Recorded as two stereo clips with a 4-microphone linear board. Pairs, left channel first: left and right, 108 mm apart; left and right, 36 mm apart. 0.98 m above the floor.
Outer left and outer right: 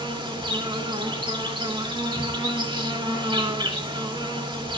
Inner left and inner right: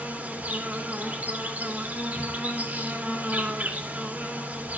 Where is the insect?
45° right (ahead or behind), 1.8 m.